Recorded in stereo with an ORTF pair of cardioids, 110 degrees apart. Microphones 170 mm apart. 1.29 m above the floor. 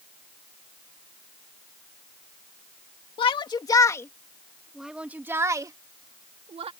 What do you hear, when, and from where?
3.2 s a shout: 30° left; by 6.7 s 35° right